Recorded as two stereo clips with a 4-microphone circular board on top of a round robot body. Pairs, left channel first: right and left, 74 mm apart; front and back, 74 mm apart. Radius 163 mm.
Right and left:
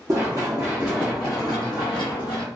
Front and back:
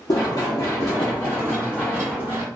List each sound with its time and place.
0.1 s running footsteps: 40° left, 0.8 m; by 2.5 s 115° right, 0.8 m